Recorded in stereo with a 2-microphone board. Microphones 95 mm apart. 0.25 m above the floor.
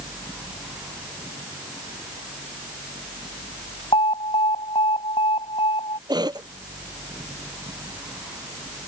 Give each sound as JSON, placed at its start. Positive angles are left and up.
{"t": 3.9, "sound": "an alarm", "side_deg": 70}
{"t": 6.1, "sound": "a cough", "side_deg": -45}